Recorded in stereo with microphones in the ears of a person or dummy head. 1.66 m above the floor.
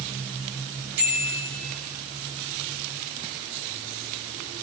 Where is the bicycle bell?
85° right, 9.5 m.